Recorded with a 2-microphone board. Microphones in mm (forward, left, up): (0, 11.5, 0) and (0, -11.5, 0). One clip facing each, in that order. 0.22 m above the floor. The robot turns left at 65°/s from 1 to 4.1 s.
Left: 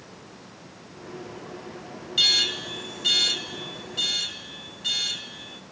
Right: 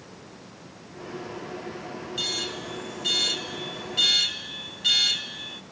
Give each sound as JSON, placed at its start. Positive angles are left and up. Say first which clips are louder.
{"t": 2.2, "sound": "an alarm", "louder": "left 9 dB", "azimuth_deg": 95, "distance_m": 0.9}